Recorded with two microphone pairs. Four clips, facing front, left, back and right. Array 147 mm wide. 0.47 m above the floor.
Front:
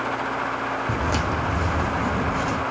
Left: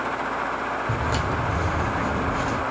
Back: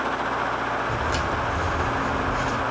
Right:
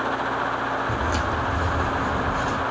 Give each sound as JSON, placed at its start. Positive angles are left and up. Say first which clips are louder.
{"t": 0.9, "sound": "footsteps", "louder": "right 1 dB, front 1 dB", "azimuth_deg": 5, "distance_m": 1.2}